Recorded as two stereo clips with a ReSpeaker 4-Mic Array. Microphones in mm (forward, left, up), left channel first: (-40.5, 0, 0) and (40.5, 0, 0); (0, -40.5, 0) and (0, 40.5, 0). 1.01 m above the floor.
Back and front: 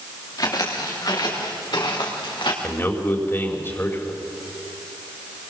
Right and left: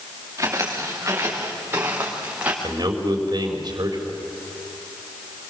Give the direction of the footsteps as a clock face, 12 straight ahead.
7 o'clock.